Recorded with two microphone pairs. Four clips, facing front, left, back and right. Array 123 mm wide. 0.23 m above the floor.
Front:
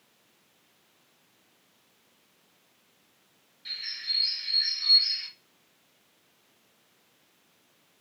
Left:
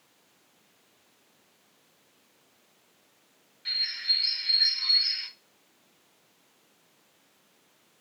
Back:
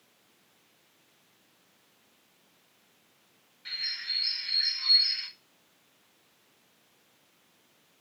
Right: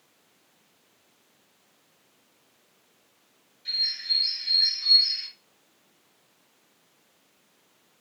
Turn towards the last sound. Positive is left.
turn(degrees=120)